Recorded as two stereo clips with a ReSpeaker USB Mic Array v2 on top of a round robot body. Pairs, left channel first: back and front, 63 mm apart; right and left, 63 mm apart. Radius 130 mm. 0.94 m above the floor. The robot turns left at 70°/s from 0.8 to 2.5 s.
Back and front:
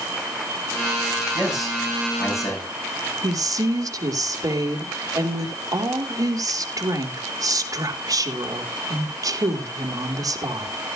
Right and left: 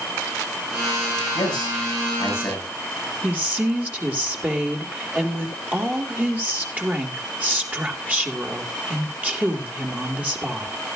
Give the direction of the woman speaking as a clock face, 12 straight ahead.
11 o'clock.